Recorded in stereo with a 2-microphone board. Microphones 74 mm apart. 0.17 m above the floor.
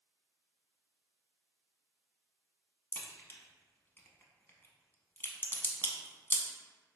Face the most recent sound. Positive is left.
turn(degrees=30)  # may be behind; listen again after turning